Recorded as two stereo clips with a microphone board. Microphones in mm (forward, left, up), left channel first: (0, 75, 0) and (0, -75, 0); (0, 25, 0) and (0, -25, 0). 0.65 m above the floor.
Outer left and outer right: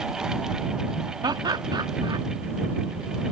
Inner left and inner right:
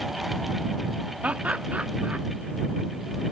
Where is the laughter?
30° right (ahead or behind).